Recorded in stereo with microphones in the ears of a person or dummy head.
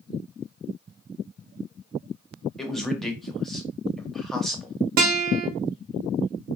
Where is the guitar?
50° right (ahead or behind), 0.6 m.